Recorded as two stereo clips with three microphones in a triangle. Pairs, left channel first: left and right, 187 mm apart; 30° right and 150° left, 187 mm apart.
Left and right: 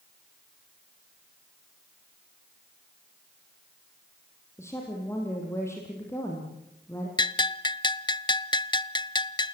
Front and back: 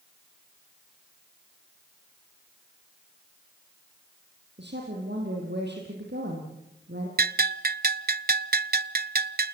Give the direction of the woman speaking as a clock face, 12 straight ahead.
7 o'clock.